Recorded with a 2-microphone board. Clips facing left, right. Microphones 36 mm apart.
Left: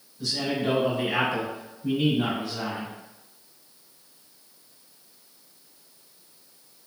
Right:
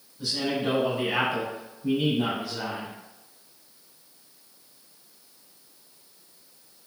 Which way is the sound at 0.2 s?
25° right (ahead or behind).